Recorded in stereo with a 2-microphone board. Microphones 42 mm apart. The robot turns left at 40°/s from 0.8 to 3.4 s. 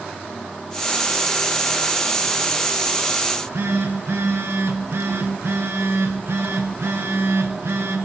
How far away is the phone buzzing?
About 3 m.